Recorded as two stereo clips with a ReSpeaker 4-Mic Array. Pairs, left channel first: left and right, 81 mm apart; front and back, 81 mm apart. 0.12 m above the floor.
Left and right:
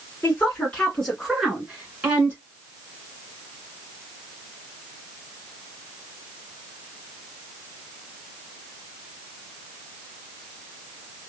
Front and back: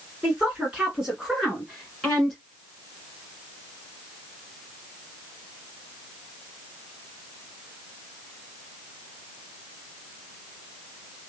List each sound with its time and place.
0.2 s a woman speaking: 130° left, 1.6 m; by 2.4 s 80° right, 1.6 m